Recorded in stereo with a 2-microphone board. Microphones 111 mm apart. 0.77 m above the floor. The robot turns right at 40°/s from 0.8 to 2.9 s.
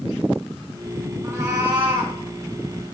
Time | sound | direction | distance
1.2 | a cat meowing | 155° right | 3.5 m